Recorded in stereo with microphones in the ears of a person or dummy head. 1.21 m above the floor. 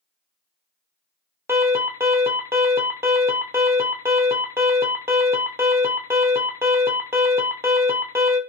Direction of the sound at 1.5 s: 10° right (ahead or behind).